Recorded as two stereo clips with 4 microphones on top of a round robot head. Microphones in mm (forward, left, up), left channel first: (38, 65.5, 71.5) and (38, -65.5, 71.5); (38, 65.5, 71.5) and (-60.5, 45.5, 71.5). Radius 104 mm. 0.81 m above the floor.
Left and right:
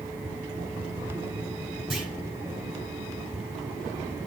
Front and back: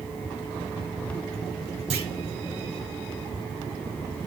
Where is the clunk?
Straight behind, 3 m.